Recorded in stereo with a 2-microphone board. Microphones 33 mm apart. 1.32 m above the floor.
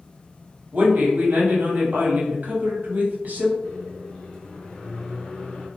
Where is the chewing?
I don't hear chewing.